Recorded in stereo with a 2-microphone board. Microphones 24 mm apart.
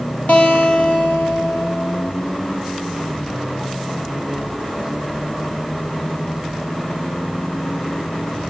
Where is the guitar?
75° left (ahead or behind), 2.5 m.